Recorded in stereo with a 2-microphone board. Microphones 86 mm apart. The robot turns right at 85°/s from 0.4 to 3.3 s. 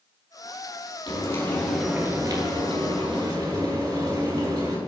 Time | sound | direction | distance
1.1 | frying | 115° left | 5 m